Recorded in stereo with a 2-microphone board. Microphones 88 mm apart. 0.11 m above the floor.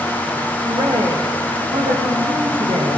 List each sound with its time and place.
0.6 s a woman speaking: 70° right (ahead or behind), 6.5 m; by 3.0 s 80° right, 9 m